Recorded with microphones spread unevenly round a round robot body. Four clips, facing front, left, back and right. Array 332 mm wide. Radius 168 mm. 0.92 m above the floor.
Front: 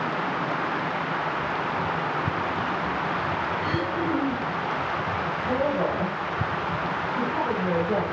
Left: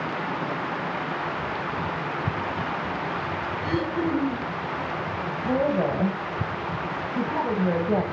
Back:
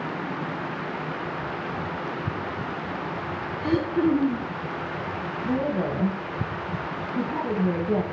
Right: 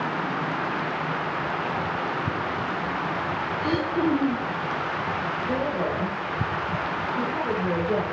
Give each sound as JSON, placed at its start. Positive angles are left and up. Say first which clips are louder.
{"t": 3.6, "sound": "throat clearing", "louder": "right 2 dB, back 4 dB", "azimuth_deg": -140, "distance_m": 1.1}
{"t": 5.4, "sound": "a woman speaking", "louder": "left 5 dB, even", "azimuth_deg": 150, "distance_m": 1.0}